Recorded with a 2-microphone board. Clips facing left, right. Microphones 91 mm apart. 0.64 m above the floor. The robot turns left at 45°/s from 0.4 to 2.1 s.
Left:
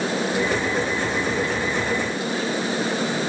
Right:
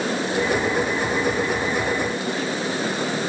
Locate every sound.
Only background noise.